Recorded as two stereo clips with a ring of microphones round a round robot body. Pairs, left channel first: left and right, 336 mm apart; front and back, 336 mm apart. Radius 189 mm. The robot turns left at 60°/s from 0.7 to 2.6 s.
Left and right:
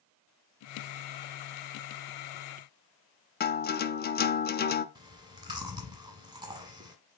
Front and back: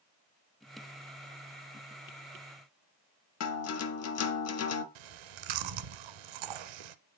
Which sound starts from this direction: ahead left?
A guitar, at 3.4 s.